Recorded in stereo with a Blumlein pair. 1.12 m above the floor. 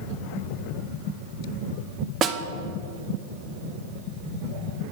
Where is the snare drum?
25° right, 0.6 m.